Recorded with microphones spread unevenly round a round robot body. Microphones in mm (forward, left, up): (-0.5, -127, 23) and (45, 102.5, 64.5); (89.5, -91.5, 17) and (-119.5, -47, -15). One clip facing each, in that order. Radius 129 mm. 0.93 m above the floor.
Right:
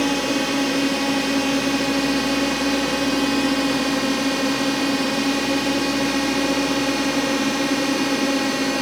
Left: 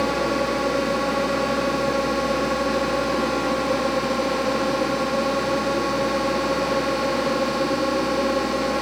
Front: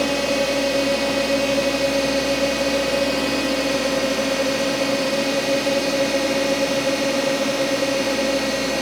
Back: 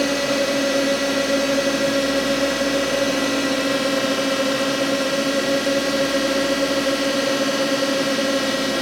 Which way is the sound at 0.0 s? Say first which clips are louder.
Right 2 dB, even; 115° right.